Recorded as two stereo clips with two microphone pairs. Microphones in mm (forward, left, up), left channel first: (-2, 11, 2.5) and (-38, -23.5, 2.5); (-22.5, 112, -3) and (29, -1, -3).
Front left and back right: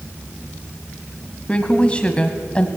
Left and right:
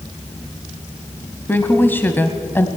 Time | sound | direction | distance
1.5 | a woman speaking | 75° left | 1.1 m